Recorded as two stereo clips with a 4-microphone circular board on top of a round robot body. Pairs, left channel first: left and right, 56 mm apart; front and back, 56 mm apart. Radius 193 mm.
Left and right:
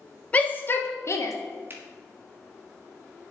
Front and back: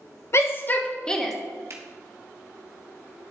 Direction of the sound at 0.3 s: 25° left.